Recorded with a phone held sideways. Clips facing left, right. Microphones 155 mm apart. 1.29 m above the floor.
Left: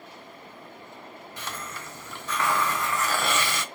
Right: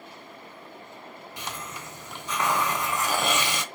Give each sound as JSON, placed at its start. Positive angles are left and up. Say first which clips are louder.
{"t": 1.4, "sound": "a hiss", "louder": "even", "side_deg": -20, "distance_m": 0.5}